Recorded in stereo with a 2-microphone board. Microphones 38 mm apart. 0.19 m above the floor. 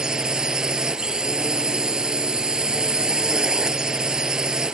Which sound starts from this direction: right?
A drone, at 0.0 s.